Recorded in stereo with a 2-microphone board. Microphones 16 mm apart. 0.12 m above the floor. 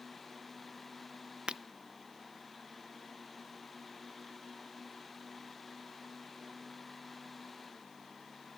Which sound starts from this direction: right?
Breaking glass, at 1.5 s.